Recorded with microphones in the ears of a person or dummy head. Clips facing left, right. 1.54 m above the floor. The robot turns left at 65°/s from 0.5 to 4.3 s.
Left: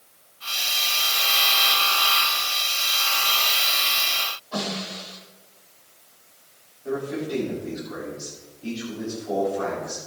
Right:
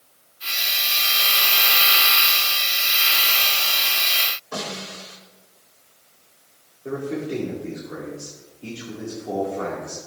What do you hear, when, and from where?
4.5 s a snare drum: 65° right (ahead or behind), 4.5 m
6.8 s a man speaking: 40° right (ahead or behind), 4 m